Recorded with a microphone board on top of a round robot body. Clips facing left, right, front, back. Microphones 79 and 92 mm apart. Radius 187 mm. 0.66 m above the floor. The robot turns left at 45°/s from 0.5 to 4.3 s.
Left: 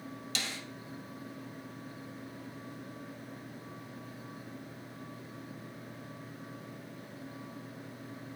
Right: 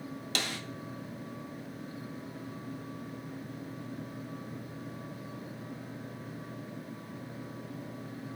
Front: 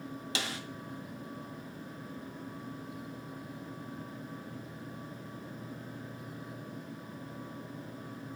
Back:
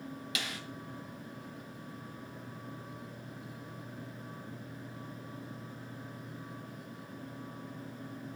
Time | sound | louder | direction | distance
0.3 | a snare drum | right 4 dB, front 4 dB | 55° right | 0.6 m